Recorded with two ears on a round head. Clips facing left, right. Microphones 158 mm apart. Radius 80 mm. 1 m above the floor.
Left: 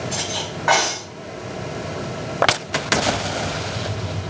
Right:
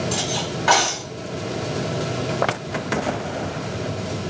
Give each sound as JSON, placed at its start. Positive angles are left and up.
{"t": 0.1, "sound": "cutlery clinking", "side_deg": -40, "distance_m": 4.5}